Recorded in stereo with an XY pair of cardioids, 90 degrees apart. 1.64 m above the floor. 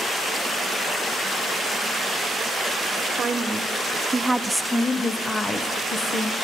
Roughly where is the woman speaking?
Ahead right.